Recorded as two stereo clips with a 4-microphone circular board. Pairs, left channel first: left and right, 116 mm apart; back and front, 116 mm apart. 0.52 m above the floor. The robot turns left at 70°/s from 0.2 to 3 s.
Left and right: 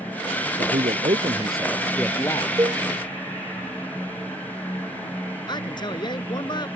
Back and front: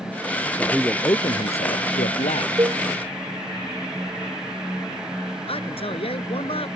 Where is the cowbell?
45° right; by 2.8 s 60° right.